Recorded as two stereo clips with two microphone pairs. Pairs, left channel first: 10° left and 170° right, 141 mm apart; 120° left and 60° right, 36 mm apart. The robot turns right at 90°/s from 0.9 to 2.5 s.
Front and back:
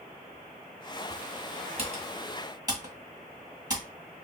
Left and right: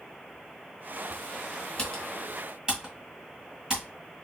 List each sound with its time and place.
1.8 s typing on a keyboard: 175° left, 1.7 m; by 3.8 s 120° right, 1.7 m